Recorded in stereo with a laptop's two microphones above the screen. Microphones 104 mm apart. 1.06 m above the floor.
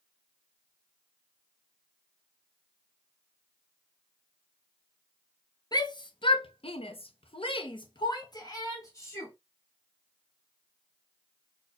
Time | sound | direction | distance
5.7 | a shout | 40° left (ahead or behind) | 1.0 m